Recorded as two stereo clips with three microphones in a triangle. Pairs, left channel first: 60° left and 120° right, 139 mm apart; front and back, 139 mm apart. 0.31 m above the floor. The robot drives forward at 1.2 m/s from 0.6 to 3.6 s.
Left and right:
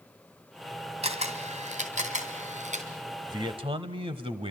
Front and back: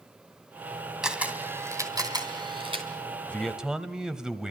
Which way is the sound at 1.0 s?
95° right.